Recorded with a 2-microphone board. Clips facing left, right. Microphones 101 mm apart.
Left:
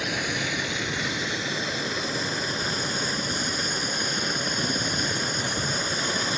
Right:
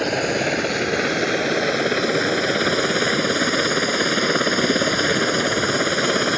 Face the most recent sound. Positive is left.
turn(degrees=-60)  # may be behind; listen again after turning